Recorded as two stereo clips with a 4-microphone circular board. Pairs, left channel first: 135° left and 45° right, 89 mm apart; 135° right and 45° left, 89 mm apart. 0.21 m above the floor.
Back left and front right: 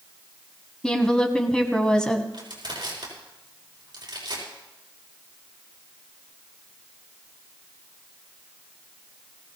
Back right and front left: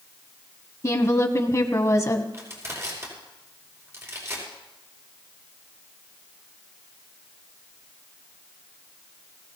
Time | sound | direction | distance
0.8 | a woman speaking | 150° right | 1.5 m
2.3 | crushing | 10° right | 6 m